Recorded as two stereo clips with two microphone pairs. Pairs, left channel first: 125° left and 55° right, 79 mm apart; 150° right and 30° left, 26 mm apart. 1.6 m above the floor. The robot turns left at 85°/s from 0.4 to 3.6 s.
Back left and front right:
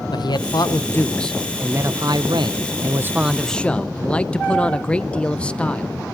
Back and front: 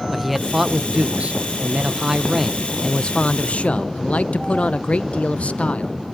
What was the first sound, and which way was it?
A man speaking, 115° left.